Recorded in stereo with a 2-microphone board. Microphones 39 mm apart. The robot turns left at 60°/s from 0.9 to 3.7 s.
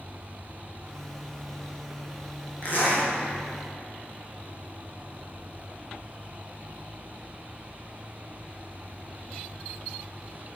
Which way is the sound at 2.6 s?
45° left (ahead or behind).